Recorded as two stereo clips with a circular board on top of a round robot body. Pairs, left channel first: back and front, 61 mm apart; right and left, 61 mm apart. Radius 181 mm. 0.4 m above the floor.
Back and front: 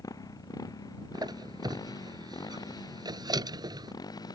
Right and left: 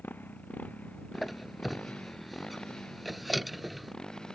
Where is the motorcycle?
150° right; by 4.4 s 170° right.